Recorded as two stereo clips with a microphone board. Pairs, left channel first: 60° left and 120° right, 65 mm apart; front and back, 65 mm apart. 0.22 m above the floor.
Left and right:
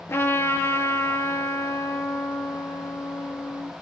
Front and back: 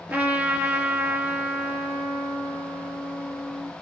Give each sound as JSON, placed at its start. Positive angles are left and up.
{"t": 0.1, "sound": "a trumpet", "azimuth_deg": 110, "distance_m": 2.5}